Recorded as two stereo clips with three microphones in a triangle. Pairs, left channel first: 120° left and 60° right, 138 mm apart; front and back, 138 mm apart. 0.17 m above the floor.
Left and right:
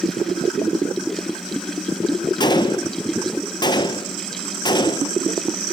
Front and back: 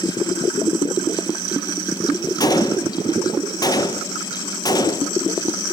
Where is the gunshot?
60° left, 0.8 m.